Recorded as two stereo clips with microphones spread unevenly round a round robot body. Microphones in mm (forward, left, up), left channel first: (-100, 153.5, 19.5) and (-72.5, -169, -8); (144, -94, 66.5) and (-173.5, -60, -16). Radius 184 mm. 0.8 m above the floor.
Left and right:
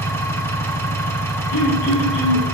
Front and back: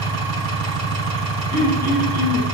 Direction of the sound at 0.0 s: 175° left.